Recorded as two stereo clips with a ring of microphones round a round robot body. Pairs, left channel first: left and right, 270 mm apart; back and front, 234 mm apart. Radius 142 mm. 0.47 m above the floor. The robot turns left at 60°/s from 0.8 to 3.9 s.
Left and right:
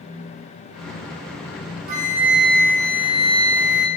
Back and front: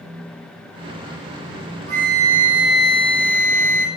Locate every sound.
1.9 s a flute: 110° right, 0.6 m; by 3.9 s 130° left, 0.6 m